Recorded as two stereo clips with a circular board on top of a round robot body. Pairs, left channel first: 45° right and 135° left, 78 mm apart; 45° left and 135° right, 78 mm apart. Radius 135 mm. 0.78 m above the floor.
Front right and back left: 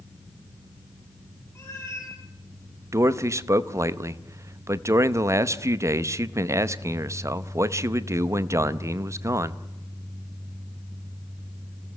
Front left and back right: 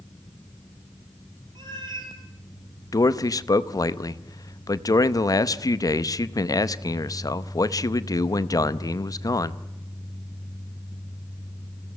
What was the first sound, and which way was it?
A cat meowing, 110° right.